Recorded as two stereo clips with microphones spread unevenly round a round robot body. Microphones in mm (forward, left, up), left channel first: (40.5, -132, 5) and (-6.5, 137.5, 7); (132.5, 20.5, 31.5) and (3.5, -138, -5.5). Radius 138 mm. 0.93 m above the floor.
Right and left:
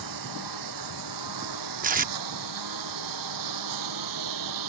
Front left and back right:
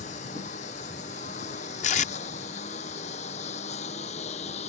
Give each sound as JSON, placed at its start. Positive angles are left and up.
{"t": 0.0, "sound": "a lawn mower", "azimuth_deg": 115}
{"t": 1.8, "sound": "tape being pulled", "azimuth_deg": 55}